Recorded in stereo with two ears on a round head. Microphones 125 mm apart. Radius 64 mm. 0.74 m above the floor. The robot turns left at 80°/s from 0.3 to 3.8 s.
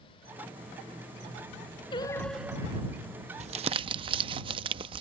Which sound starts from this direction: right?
Crumpling, at 3.4 s.